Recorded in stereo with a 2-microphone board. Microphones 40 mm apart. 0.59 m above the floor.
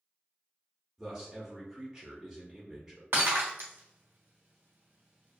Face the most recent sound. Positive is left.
turn(degrees=-75)  # may be behind; listen again after turning